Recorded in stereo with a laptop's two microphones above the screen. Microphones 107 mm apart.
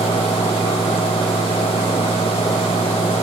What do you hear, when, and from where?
0.0 s a fan: 75° left (ahead or behind)